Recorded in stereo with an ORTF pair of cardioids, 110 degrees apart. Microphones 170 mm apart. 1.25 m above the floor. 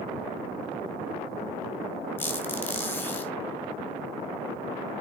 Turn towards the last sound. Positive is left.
turn(degrees=10)